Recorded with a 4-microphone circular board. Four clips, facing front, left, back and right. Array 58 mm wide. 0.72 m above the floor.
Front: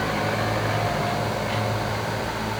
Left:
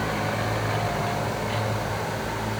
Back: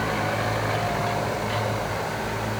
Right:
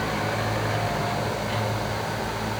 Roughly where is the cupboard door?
I don't hear a cupboard door.